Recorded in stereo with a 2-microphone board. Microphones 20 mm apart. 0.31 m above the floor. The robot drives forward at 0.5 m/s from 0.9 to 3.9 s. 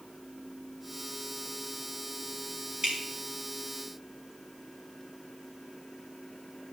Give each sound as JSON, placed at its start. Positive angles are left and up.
{"t": 2.8, "sound": "dripping", "side_deg": -45, "distance_m": 3.5}